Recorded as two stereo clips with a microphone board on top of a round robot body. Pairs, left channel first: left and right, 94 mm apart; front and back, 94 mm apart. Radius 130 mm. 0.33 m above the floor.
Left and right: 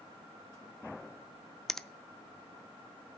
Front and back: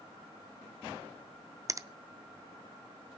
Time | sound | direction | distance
1.7 | a finger snap | 170° left | 0.7 m